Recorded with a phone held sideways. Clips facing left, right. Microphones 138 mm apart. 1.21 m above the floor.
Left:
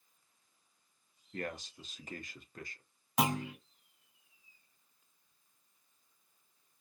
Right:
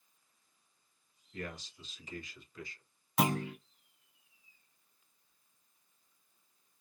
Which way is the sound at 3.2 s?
15° left (ahead or behind).